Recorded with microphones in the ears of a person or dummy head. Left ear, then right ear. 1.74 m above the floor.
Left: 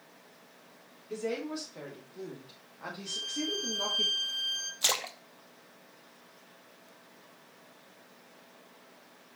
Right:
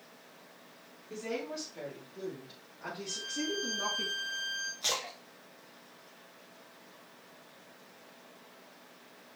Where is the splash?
30° left (ahead or behind), 0.9 m.